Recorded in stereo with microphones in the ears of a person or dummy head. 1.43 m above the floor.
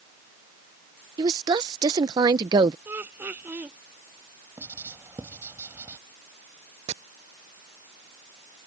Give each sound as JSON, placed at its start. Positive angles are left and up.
{"t": 1.2, "sound": "a woman speaking", "side_deg": -30}
{"t": 2.9, "sound": "laughter", "side_deg": -15}
{"t": 4.6, "sound": "writing", "side_deg": -20}
{"t": 6.9, "sound": "chopping", "side_deg": -40}